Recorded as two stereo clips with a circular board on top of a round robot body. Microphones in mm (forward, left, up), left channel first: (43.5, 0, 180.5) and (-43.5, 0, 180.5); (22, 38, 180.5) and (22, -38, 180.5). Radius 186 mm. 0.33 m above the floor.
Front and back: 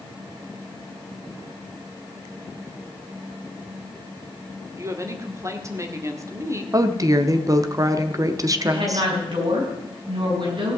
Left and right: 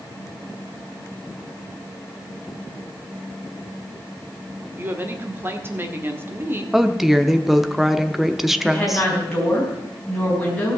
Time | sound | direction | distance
4.8 | a woman speaking | 140° right | 1.9 m
6.7 | a woman speaking | 175° right | 1.1 m
8.6 | a woman speaking | 170° left | 4.5 m